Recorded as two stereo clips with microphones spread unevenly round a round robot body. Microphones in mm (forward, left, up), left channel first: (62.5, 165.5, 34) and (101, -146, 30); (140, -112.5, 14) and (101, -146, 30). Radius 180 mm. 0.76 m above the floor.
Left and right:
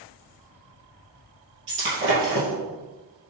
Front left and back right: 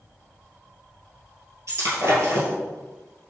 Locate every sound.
1.7 s breaking glass: 140° right, 2.5 m